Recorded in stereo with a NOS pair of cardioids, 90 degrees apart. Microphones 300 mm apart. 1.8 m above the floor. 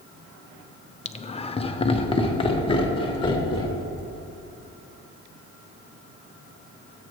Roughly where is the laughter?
Ahead left.